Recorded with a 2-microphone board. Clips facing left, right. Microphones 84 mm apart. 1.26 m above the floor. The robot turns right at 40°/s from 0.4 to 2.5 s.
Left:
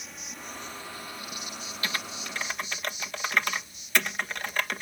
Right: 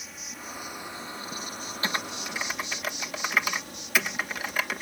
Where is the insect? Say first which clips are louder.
Right 1 dB; straight behind; by 4.8 s 95° right.